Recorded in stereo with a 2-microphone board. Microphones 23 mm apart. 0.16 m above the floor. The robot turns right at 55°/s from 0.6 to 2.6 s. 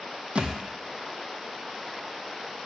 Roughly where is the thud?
Right.